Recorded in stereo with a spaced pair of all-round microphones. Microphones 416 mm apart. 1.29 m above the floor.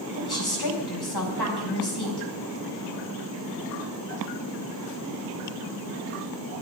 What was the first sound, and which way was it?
A woman speaking, 65° left (ahead or behind).